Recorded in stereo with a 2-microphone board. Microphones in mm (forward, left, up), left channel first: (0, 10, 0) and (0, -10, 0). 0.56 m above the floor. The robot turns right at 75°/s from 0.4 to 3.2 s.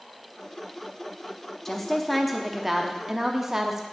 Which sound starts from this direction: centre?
A woman speaking, at 1.6 s.